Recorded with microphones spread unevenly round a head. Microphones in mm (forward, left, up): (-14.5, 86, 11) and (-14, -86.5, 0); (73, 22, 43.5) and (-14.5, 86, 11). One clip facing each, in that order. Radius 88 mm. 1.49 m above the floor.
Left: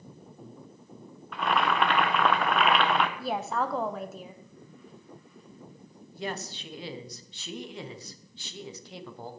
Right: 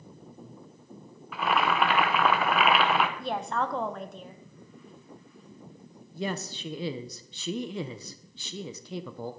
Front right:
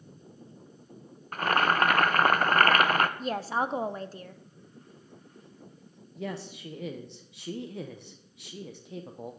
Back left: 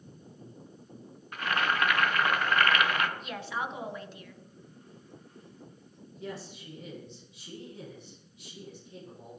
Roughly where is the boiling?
Ahead.